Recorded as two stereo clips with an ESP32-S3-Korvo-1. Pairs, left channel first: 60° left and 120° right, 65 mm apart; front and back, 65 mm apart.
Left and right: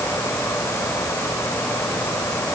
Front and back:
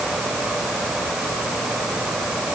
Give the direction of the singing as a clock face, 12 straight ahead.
I don't hear singing.